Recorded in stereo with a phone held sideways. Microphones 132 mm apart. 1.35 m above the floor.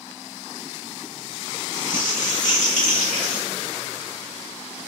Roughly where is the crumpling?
Left.